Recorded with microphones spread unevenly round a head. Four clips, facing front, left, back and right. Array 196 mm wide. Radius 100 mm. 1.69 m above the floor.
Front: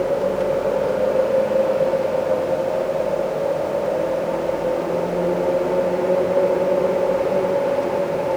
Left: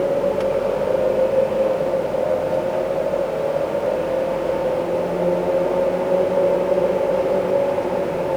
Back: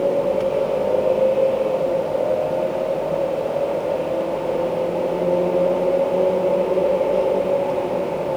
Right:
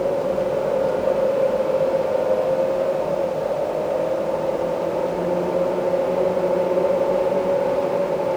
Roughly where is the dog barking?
No dog barking in this recording.